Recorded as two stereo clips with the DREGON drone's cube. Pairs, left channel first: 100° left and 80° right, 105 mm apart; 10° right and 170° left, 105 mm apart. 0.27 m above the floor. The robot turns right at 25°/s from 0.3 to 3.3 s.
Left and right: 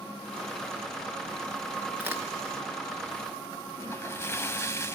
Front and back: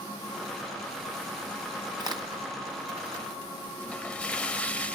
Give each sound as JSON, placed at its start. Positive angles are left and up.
{"t": 2.0, "sound": "a crack", "azimuth_deg": -150, "distance_m": 4.0}
{"t": 3.8, "sound": "a splash", "azimuth_deg": 55, "distance_m": 1.0}